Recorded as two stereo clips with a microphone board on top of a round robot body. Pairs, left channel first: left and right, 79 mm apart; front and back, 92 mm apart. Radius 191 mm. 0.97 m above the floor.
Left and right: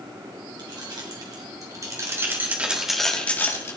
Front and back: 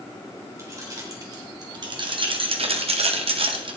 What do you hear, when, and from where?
0.6 s keys jangling: 120° right, 4 m; by 3.8 s 145° left, 2 m